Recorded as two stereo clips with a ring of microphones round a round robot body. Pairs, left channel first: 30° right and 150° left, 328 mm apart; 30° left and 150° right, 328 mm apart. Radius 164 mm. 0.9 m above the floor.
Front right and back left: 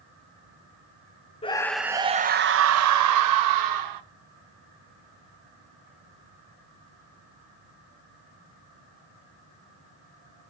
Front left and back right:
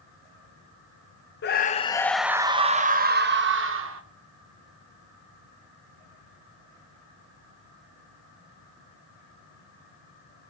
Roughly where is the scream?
Ahead left.